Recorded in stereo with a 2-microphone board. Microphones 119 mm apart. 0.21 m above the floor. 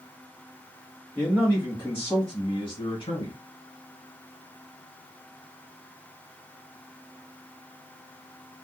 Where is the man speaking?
10° left (ahead or behind), 1.7 m; by 3.3 s 40° left (ahead or behind), 2 m.